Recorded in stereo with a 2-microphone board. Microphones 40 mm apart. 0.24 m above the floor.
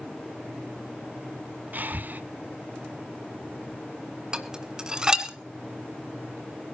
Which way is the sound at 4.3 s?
15° right (ahead or behind).